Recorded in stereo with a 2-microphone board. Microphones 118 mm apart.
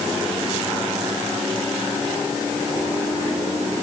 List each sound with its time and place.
Only background noise.